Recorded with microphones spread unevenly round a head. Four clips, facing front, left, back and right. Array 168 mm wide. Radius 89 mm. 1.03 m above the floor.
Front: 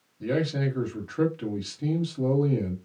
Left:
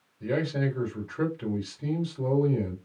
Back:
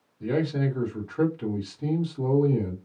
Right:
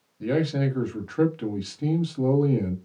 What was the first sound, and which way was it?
A man speaking, 60° right.